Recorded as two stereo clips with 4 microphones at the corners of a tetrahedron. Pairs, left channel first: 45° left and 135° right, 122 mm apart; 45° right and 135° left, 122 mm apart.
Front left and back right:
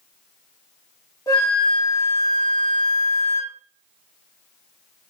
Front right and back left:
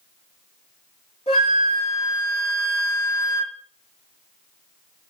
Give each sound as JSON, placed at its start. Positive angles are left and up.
{"t": 1.3, "sound": "a flute", "azimuth_deg": -15, "distance_m": 2.5}